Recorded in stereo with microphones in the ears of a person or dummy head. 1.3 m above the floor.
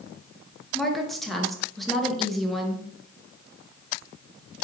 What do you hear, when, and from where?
0.7 s a woman speaking: 5° right (ahead or behind), 0.6 m